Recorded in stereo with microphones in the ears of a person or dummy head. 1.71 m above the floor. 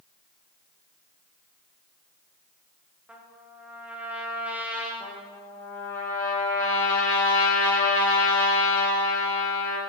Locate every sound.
3.1 s a trumpet: 5° right (ahead or behind), 0.9 m
5.0 s a trumpet: 15° left (ahead or behind), 1.6 m